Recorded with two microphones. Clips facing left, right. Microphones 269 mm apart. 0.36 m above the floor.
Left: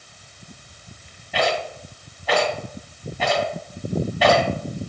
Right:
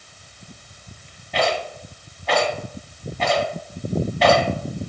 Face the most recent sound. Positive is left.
turn(degrees=5)  # may be behind; listen again after turning